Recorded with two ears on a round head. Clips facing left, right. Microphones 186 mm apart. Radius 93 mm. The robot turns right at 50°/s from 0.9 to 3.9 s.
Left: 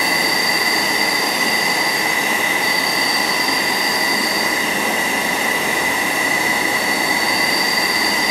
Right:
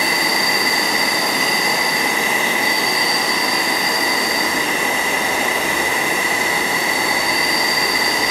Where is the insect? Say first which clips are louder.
Even; 115° right, 0.8 m; by 8.3 s 35° left, 0.8 m.